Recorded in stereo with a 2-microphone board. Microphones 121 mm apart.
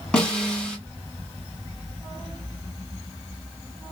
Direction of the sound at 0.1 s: 5° left (ahead or behind).